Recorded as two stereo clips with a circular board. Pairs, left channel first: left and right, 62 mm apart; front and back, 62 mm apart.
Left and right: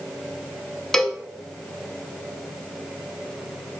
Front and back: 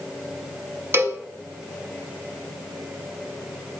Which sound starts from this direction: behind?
A cowbell, at 0.9 s.